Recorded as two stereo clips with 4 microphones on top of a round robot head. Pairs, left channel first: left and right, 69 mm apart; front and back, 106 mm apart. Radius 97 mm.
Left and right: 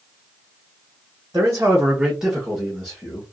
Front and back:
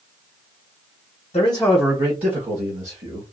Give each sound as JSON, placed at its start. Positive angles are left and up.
{"t": 1.3, "sound": "a man speaking", "azimuth_deg": -30, "distance_m": 0.7}